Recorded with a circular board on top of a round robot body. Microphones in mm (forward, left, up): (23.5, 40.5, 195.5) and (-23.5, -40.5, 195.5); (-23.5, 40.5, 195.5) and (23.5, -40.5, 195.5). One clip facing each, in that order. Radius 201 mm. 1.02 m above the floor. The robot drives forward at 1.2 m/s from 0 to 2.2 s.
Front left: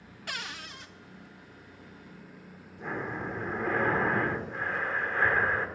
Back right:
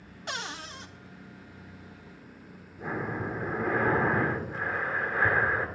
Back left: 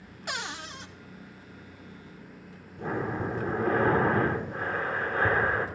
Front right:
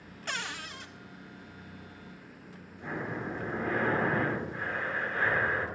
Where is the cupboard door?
170° right, 0.6 m; by 0.9 s 175° right, 1.1 m.